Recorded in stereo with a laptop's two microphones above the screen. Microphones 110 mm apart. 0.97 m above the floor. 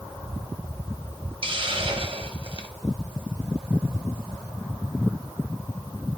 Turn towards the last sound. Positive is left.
turn(degrees=-50)  # may be behind; listen again after turning